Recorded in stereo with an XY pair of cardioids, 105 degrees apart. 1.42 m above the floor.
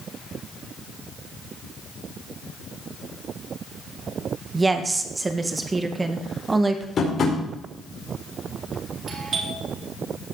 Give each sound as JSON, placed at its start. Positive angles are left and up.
{"t": 4.5, "sound": "a woman speaking", "azimuth_deg": -25, "distance_m": 1.7}
{"t": 7.0, "sound": "tapping", "azimuth_deg": 45, "distance_m": 4.5}
{"t": 9.1, "sound": "a doorbell", "azimuth_deg": -50, "distance_m": 5.0}